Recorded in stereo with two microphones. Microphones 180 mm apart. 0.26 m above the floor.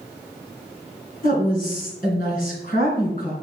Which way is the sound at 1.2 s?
50° left (ahead or behind).